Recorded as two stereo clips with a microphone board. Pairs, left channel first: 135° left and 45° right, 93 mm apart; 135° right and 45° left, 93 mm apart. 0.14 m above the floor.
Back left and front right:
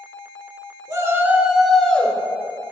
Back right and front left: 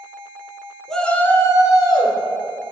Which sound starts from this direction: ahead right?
A shout, at 0.9 s.